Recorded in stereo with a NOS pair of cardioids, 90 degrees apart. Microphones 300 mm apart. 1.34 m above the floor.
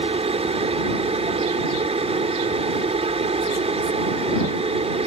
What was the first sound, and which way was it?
A machine running, 20° right.